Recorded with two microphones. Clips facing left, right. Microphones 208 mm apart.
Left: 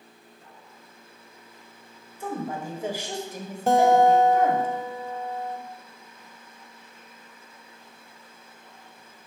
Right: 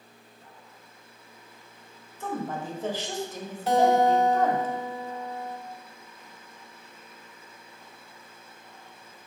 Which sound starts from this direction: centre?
A woman speaking, at 2.2 s.